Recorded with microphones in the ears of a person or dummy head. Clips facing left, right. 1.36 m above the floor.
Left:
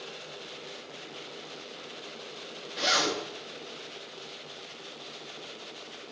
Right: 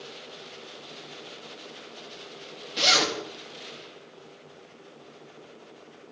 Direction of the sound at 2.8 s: 40° right (ahead or behind).